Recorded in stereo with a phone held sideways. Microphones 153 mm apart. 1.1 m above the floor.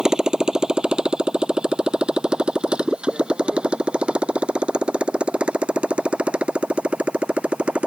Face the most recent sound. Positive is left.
turn(degrees=-5)  # may be behind; listen again after turning